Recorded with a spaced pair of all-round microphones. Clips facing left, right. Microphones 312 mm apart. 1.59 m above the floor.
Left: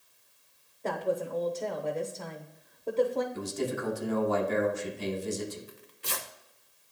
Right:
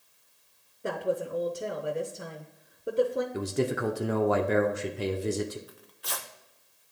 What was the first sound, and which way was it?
A woman speaking, 15° right (ahead or behind).